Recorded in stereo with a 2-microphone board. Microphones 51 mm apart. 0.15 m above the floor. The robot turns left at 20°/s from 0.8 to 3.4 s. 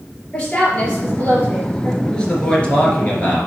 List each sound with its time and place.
0.3 s a woman speaking: 25° left (ahead or behind), 3.5 m; by 1.9 s 40° left (ahead or behind), 3.5 m
2.0 s a man speaking: 15° left (ahead or behind), 2.5 m; by 3.5 s 35° left (ahead or behind), 2.5 m